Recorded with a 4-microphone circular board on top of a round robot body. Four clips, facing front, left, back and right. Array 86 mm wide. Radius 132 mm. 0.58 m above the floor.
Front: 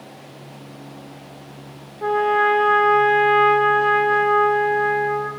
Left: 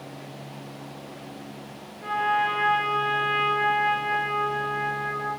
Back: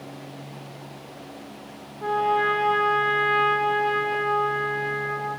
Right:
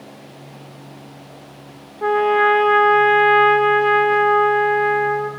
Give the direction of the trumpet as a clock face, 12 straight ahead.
3 o'clock.